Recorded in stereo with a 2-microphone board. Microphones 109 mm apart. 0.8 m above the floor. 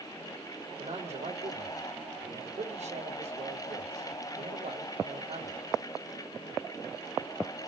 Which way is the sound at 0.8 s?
75° right (ahead or behind).